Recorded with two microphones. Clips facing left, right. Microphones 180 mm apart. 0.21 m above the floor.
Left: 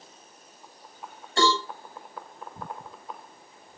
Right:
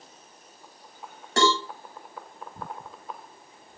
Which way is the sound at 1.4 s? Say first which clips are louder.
Right 1 dB; 80° right.